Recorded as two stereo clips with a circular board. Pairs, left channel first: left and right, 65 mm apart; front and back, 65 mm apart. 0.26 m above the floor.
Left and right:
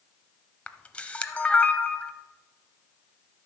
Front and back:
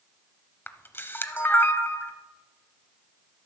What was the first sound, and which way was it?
A camera shutter, 30° left.